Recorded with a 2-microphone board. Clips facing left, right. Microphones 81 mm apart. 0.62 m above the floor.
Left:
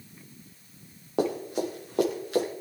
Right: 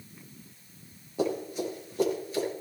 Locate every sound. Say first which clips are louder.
1.2 s running footsteps: left 2 dB; 75° left (ahead or behind), 6.5 m; by 2.5 s 85° left, 7.5 m